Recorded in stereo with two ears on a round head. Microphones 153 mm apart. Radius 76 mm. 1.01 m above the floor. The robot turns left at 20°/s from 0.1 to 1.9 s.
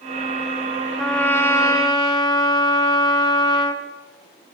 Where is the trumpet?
5° left (ahead or behind), 0.8 m; by 3.8 s 20° left (ahead or behind), 0.8 m.